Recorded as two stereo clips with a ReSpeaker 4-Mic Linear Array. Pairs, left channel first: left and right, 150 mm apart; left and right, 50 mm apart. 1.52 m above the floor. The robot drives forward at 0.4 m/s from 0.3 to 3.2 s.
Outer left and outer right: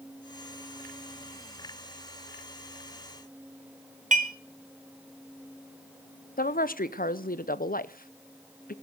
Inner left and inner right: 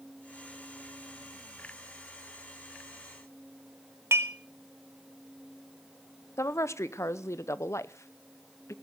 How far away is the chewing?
No chewing in this recording.